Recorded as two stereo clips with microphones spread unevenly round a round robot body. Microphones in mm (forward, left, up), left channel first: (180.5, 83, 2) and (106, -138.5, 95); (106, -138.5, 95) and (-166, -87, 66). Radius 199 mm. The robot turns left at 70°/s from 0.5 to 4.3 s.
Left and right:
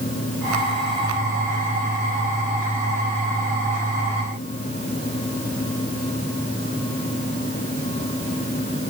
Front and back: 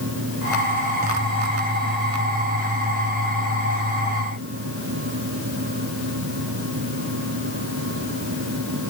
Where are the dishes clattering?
I don't hear dishes clattering.